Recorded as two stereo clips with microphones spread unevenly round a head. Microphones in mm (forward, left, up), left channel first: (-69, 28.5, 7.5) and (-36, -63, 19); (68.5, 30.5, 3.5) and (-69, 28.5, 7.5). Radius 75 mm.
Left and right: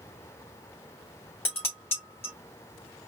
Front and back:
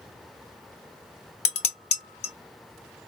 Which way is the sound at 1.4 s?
35° left.